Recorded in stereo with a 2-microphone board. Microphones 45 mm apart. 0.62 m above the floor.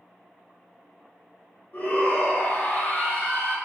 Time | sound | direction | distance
1.7 | a shout | 40° left (ahead or behind) | 1.3 m